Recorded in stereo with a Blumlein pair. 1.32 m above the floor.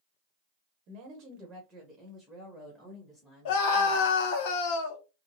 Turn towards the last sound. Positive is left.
turn(degrees=50)